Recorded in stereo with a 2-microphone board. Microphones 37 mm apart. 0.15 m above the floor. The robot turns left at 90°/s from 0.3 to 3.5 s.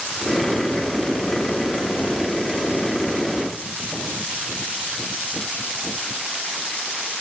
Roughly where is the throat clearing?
No throat clearing in this recording.